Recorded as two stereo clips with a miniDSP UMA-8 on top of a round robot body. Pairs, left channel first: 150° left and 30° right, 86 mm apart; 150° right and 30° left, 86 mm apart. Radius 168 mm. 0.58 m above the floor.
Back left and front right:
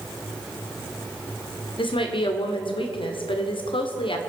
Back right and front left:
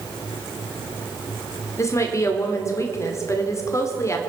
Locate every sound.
1.8 s a woman speaking: 155° left, 1.9 m